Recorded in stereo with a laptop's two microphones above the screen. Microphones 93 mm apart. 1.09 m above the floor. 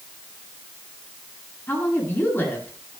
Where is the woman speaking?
20° left (ahead or behind), 8.5 m.